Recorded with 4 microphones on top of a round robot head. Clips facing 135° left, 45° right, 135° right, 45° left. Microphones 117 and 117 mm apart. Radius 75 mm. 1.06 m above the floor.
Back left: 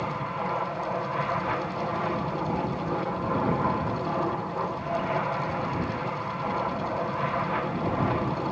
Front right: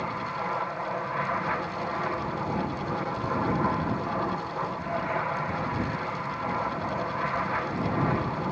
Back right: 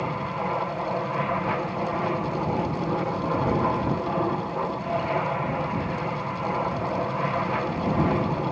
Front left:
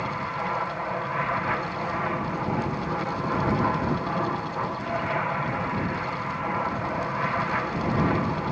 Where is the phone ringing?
I don't hear a phone ringing.